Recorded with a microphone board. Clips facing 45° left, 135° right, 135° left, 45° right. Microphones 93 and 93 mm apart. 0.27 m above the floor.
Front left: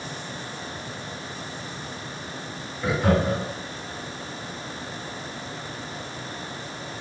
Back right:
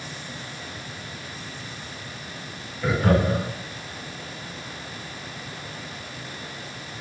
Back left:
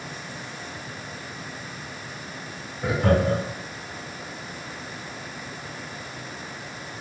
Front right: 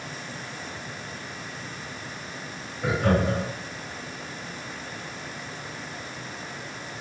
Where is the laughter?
125° left, 2 m.